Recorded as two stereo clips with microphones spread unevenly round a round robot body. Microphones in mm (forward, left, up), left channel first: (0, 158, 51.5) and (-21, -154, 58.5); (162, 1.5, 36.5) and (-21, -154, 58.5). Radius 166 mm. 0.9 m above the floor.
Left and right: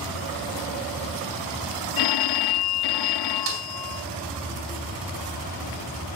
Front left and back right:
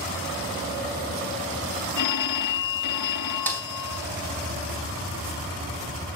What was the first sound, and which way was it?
A phone ringing, 60° left.